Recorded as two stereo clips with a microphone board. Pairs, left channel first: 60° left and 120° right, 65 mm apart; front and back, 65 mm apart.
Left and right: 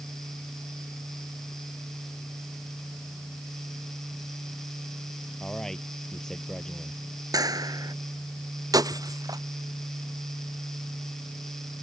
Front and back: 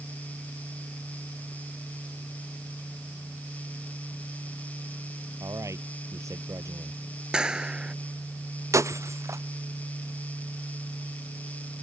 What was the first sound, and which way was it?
A man speaking, 145° left.